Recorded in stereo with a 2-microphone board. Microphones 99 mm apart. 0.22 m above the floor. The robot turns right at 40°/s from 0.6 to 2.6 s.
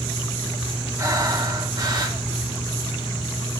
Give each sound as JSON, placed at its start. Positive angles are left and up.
{"t": 1.0, "sound": "breathing", "azimuth_deg": -125, "distance_m": 1.8}